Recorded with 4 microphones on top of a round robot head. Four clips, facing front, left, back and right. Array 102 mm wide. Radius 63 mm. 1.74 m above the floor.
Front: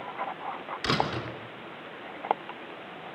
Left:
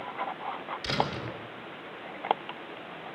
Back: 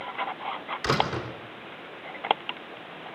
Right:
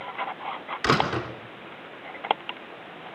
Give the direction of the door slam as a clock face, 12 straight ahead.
3 o'clock.